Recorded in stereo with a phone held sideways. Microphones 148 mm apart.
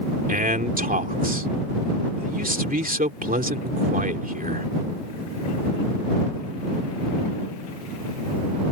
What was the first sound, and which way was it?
A man speaking, 80° right.